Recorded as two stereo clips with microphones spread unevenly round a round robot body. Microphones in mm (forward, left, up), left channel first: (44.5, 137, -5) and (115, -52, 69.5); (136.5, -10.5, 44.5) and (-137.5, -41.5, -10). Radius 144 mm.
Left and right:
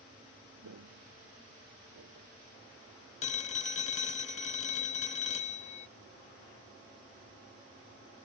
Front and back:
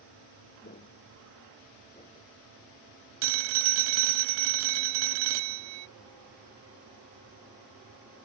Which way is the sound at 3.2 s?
165° left.